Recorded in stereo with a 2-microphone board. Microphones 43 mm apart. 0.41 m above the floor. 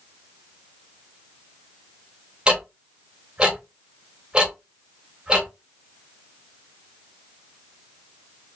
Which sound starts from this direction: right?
Ticking, at 2.5 s.